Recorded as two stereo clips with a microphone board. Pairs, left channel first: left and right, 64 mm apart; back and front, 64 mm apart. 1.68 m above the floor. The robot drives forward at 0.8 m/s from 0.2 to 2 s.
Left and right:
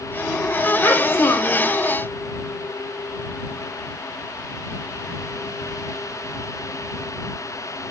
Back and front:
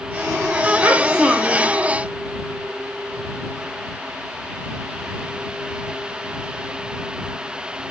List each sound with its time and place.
0.8 s a child speaking: 50° left, 0.9 m; by 1.7 s 115° left, 0.8 m